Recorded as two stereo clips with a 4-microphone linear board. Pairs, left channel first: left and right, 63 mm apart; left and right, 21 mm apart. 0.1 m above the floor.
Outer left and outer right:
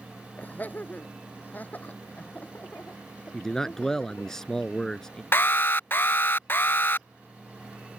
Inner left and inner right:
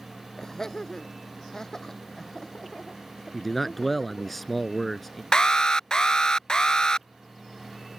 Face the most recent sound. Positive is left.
turn(degrees=35)  # may be behind; listen again after turning